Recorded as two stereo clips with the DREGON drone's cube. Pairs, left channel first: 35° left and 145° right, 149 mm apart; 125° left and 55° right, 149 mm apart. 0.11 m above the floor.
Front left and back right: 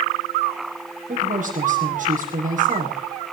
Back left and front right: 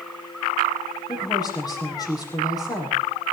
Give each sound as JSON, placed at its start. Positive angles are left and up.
{"t": 1.1, "sound": "a woman speaking", "azimuth_deg": -170, "distance_m": 7.0}